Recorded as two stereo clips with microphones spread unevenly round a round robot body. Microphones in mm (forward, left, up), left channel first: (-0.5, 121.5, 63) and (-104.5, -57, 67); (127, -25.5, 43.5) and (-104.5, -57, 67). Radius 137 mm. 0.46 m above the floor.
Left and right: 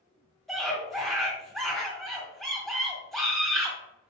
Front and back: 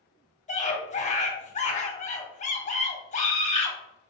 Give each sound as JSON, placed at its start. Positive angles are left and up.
{"t": 0.5, "sound": "a scream", "azimuth_deg": -25, "distance_m": 1.6}